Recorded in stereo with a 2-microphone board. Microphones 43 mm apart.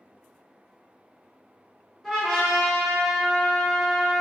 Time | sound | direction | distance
2.0 | a trumpet | 5° left (ahead or behind) | 1.2 m